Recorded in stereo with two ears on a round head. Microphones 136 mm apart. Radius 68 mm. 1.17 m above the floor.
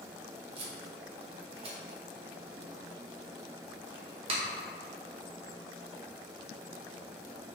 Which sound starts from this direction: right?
Tape being pulled, at 0.6 s.